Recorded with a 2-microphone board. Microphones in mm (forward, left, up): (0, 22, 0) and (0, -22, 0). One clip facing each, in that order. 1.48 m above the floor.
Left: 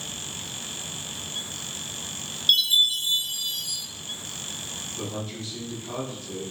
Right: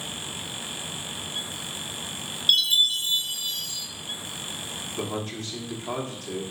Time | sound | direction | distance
2.5 | a chime | 5° right (ahead or behind) | 1.3 m
5.0 | a man speaking | 70° right (ahead or behind) | 0.9 m